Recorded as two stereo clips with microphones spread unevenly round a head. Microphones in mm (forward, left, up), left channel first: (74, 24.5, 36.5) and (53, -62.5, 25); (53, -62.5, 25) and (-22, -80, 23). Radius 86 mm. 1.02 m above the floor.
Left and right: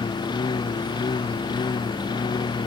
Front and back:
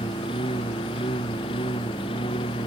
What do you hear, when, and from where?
0.0 s a lawn mower: 40° left